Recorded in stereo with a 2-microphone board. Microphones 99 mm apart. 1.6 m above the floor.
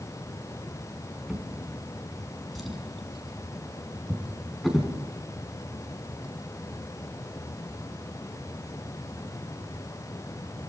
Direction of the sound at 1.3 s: Centre (ahead or behind).